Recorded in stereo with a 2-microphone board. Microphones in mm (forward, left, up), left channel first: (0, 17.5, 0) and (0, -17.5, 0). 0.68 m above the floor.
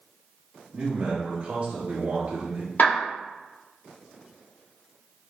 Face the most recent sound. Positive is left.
turn(degrees=65)  # may be behind; listen again after turning